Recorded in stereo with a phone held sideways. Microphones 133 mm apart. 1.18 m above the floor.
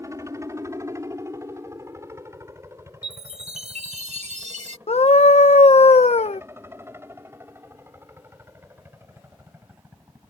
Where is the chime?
60° right (ahead or behind).